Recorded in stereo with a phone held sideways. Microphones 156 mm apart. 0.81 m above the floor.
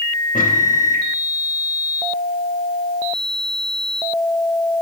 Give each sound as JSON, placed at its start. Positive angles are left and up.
{"t": 0.3, "sound": "a microwave", "side_deg": 60, "distance_m": 1.0}